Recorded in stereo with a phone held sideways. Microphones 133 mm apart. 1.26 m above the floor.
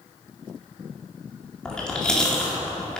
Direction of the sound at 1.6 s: 5° left (ahead or behind).